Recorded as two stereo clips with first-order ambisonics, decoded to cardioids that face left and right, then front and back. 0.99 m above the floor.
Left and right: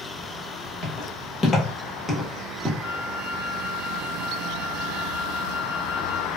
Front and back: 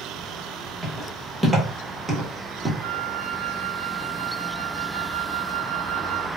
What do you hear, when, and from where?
0.8 s footsteps: 95° left, 1.3 m; by 2.7 s 130° right, 1.0 m
2.8 s a flute: 160° left, 0.8 m